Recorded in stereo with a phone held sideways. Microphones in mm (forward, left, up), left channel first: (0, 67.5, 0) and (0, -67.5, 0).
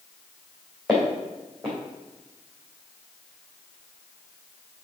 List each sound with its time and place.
0.9 s footsteps: centre (ahead or behind), 3 m